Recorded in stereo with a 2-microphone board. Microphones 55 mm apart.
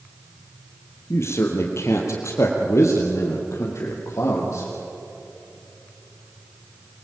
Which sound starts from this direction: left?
A man speaking, at 1.1 s.